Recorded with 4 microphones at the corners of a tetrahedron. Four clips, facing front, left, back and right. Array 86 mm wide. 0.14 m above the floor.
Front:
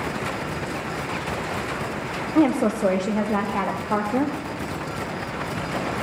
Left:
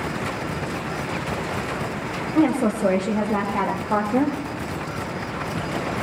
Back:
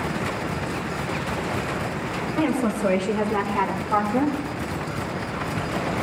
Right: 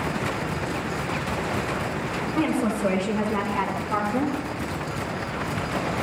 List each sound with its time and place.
2.4 s a woman speaking: 25° left, 4 m; by 4.4 s 50° left, 3 m